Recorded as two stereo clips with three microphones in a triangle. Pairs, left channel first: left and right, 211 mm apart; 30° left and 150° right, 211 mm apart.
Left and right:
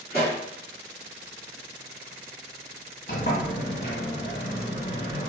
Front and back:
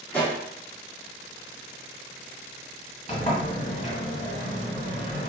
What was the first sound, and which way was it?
A pop, 110° left.